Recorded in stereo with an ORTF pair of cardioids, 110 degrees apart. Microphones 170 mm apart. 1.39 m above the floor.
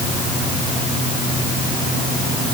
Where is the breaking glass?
I don't hear breaking glass.